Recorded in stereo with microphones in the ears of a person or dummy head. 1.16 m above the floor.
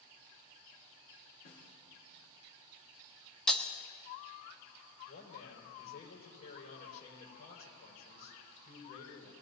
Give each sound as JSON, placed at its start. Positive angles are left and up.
{"t": 1.4, "sound": "a snare drum", "side_deg": 55, "distance_m": 5.0}
{"t": 3.5, "sound": "breaking glass", "side_deg": 5, "distance_m": 1.0}
{"t": 5.1, "sound": "a man speaking", "side_deg": 55, "distance_m": 5.0}